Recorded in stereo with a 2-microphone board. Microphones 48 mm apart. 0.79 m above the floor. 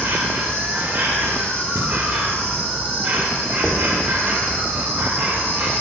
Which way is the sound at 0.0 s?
50° right (ahead or behind).